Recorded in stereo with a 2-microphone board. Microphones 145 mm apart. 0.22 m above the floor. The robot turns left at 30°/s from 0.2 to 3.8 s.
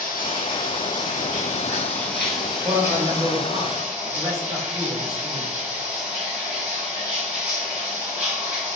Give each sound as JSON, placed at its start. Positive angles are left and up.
{"t": 0.0, "sound": "running water", "azimuth_deg": 100, "distance_m": 1.2}
{"t": 2.6, "sound": "a man speaking", "azimuth_deg": -100, "distance_m": 1.1}